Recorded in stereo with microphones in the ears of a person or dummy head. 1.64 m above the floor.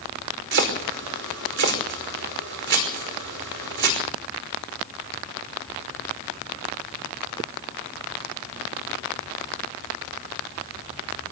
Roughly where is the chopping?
Right.